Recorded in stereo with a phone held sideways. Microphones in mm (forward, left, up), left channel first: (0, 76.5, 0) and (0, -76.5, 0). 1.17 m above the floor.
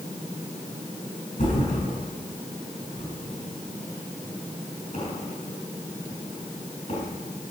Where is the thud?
65° left (ahead or behind), 4.5 m.